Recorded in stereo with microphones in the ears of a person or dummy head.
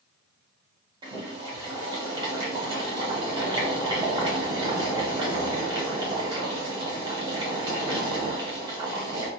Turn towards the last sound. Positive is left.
turn(degrees=-20)  # may be behind; listen again after turning